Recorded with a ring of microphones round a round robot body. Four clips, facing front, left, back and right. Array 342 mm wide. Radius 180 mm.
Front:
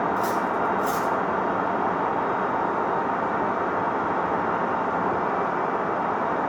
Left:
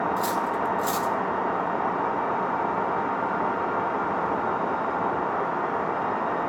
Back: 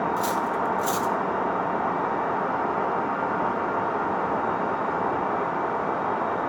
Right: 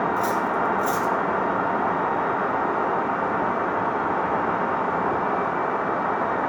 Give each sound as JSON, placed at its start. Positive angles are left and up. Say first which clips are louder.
{"t": 0.2, "sound": "cutlery clinking", "louder": "right 3 dB, front 1 dB", "azimuth_deg": 145, "distance_m": 1.0}